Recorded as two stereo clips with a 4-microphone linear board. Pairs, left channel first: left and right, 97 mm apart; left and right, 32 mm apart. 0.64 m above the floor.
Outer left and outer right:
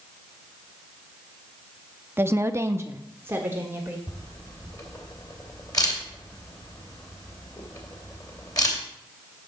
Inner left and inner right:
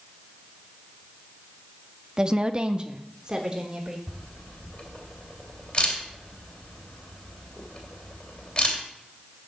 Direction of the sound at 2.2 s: 25° right (ahead or behind).